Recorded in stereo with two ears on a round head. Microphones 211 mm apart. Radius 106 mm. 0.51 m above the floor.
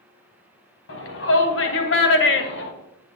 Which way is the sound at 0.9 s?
60° left (ahead or behind).